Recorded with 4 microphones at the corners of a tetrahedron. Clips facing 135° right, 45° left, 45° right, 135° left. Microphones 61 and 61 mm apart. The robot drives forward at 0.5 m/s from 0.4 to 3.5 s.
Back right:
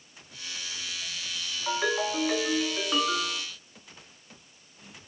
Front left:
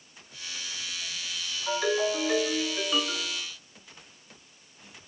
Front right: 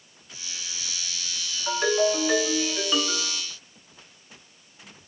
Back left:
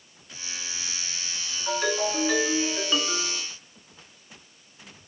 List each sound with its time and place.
1.7 s a ringtone: 105° right, 1.3 m; by 3.4 s 145° right, 1.6 m